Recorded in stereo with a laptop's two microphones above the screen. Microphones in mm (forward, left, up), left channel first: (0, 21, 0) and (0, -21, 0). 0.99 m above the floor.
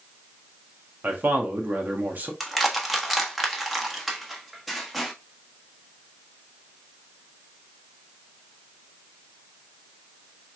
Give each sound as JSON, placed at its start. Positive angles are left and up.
{"t": 1.0, "sound": "a man speaking", "side_deg": -50, "distance_m": 1.4}
{"t": 2.4, "sound": "crushing", "side_deg": 0, "distance_m": 1.4}